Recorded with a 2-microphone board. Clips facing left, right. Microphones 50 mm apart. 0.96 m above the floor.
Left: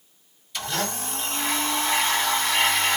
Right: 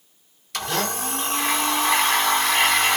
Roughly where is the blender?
Right.